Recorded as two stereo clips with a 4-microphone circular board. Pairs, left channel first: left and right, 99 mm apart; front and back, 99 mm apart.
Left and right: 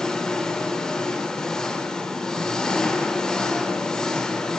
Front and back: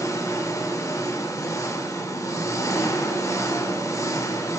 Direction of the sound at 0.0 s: 15° left.